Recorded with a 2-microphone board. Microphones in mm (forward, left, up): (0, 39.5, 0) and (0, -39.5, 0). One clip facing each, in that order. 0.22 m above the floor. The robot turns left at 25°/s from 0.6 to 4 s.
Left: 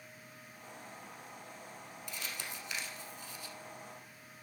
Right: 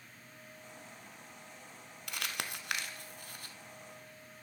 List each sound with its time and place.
2.1 s crumpling: 70° right (ahead or behind), 0.8 m; by 3.5 s 50° right (ahead or behind), 0.8 m